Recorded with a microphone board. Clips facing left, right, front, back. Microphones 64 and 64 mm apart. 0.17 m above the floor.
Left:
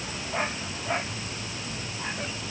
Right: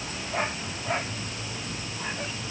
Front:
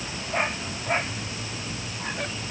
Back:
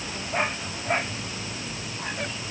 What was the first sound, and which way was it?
Only background noise.